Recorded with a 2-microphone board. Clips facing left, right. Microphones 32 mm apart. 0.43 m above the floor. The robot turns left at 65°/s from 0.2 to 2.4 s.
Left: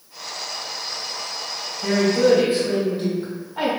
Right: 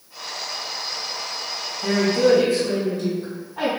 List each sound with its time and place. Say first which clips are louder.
1.8 s a woman speaking: left 1 dB; 140° left, 1.5 m; by 3.7 s 100° left, 1.5 m